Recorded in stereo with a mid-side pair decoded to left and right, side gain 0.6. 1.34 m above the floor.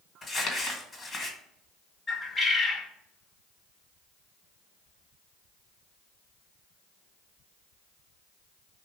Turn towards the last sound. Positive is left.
turn(degrees=30)